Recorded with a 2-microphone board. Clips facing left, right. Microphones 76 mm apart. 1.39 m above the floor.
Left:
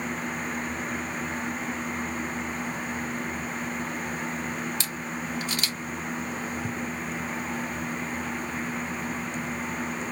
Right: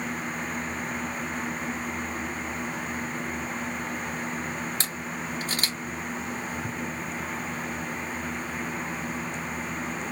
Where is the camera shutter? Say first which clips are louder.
Even; 40° right (ahead or behind), 1.4 m.